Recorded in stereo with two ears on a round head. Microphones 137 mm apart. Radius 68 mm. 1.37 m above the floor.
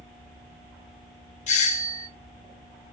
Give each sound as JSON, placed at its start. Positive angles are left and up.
{"t": 1.5, "sound": "a doorbell", "side_deg": 45, "distance_m": 0.6}